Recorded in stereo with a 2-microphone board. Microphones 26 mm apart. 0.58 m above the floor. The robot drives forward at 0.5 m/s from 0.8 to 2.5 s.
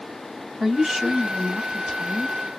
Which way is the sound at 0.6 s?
20° right (ahead or behind).